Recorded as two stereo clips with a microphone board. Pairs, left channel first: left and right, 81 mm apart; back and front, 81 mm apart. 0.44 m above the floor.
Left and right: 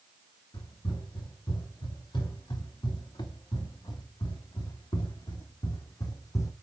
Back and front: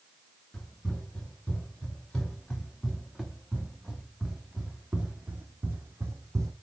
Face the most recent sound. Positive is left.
turn(degrees=45)